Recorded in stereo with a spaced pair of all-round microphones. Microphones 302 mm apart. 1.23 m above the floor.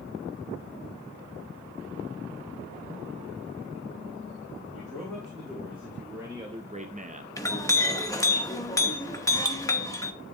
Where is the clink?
10° left (ahead or behind), 0.8 m.